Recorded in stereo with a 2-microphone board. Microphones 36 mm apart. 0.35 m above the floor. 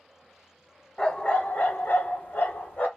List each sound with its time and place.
1.0 s a dog barking: 20° left (ahead or behind), 0.6 m; by 2.9 s 55° left (ahead or behind), 0.9 m